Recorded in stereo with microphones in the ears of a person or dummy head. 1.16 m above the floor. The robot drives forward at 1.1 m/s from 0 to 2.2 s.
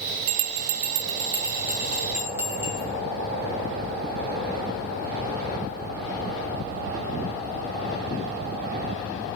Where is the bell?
70° right (ahead or behind), 0.5 m; by 2.9 s 15° right (ahead or behind), 2 m.